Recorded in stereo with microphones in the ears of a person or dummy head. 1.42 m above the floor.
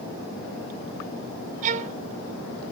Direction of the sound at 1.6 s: 45° right (ahead or behind).